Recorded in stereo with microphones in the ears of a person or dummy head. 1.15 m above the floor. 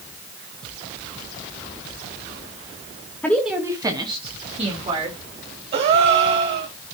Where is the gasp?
40° right (ahead or behind), 1.2 m.